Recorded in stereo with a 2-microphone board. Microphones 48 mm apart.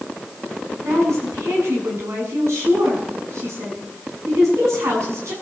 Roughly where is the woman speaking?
Right.